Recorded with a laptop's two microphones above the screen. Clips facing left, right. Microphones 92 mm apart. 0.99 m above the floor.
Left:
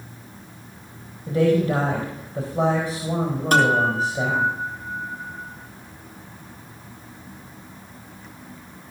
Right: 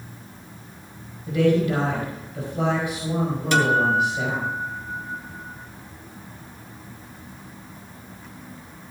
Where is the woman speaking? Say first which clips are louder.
Left 1 dB; 30° left (ahead or behind), 4 m.